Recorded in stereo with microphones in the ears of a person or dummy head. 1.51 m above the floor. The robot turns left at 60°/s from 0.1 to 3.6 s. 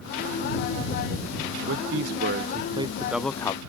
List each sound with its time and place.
1.7 s a man speaking: 90° right; by 3.6 s 155° left